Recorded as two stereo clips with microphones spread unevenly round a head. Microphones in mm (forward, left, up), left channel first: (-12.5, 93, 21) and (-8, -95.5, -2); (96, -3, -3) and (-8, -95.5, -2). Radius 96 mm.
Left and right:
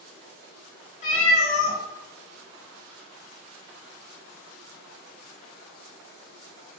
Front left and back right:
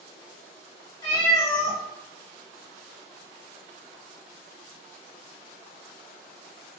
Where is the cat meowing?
95° left, 0.9 m.